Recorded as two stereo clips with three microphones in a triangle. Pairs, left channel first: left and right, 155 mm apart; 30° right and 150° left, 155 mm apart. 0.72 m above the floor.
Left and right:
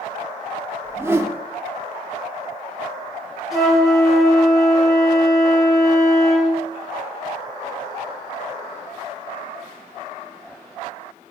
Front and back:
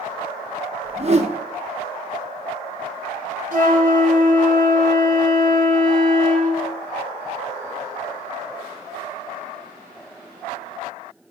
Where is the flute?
Straight behind, 2.5 m.